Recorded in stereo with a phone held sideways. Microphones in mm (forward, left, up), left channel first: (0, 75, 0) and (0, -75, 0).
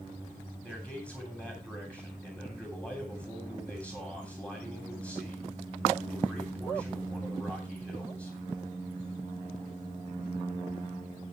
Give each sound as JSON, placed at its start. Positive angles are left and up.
{"t": 0.6, "sound": "a man speaking", "side_deg": 10, "distance_m": 9.0}